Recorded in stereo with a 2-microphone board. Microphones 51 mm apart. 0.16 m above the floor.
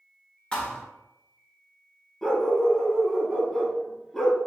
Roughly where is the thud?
Centre.